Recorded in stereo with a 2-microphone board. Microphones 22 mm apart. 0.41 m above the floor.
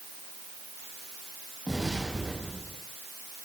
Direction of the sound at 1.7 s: 5° right (ahead or behind).